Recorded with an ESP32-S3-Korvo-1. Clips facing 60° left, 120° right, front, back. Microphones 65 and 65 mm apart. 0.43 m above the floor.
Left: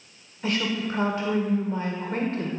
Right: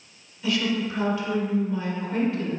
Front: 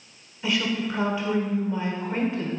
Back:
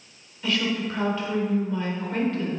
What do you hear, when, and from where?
0.4 s a woman speaking: 65° left, 1.3 m